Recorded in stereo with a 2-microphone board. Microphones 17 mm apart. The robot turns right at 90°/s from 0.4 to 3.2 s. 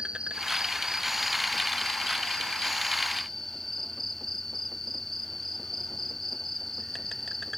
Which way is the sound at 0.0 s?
85° right.